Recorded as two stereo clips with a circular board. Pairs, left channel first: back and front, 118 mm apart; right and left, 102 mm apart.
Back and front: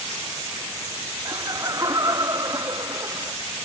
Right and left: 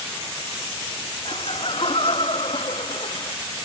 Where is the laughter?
60° right.